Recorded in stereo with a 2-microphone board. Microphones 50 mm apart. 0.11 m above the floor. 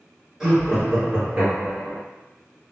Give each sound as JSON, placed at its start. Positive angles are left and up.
{"t": 0.4, "sound": "laughter", "side_deg": -10, "distance_m": 1.7}